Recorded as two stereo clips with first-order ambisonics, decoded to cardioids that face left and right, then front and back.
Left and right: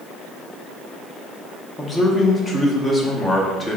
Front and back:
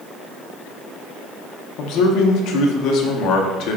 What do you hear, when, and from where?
1.8 s a man speaking: 15° left, 0.6 m